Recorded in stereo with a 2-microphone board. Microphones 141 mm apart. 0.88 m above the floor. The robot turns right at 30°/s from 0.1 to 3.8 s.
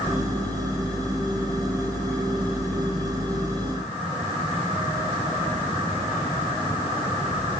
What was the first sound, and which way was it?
Only background noise.